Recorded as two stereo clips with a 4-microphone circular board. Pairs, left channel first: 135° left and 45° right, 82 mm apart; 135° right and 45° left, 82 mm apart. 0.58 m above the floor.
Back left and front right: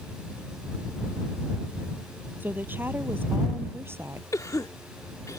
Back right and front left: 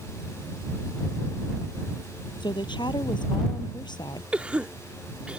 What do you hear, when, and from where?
2.4 s a woman speaking: 110° right; by 4.2 s 105° right
4.3 s a cough: 115° left